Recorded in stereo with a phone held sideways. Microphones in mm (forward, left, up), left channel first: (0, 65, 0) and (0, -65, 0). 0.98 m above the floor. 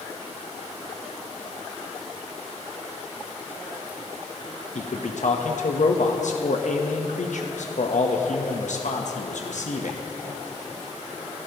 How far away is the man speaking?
About 0.9 m.